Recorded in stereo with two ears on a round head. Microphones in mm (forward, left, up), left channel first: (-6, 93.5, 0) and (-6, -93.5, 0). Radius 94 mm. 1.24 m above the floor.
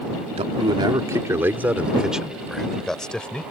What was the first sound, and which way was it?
A man speaking, 30° right (ahead or behind).